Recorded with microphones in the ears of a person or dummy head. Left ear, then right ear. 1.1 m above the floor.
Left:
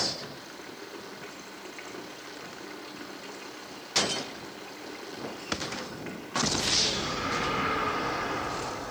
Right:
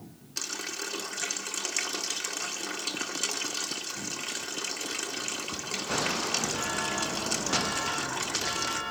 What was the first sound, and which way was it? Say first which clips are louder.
A running tap: right 8 dB; 80° right.